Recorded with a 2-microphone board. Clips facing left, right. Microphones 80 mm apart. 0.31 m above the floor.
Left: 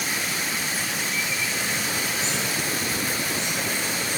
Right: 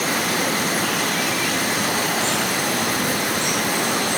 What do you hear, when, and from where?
0.0 s running water: 65° right (ahead or behind)